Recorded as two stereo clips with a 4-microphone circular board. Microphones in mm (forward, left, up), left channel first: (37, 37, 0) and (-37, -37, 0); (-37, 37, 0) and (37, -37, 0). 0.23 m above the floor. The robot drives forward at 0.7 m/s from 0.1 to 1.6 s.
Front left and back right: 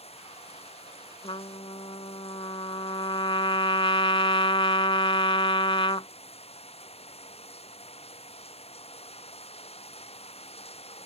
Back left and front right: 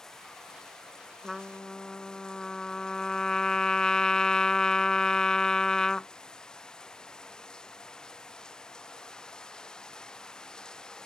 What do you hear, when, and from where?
0.0 s running water: 50° left; by 11.1 s 55° left
1.2 s a trumpet: 45° left; by 6.1 s 55° left